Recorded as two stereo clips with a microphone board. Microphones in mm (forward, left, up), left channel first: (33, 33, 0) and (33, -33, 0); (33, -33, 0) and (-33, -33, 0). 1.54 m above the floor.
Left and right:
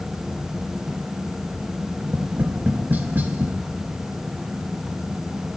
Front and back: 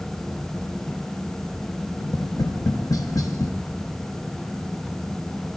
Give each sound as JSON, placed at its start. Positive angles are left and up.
{"t": 2.0, "sound": "tapping", "azimuth_deg": -30, "distance_m": 0.6}